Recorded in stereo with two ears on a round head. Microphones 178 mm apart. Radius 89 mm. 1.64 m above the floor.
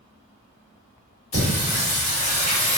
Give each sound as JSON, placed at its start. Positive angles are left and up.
{"t": 1.3, "sound": "singing", "side_deg": 35, "distance_m": 1.6}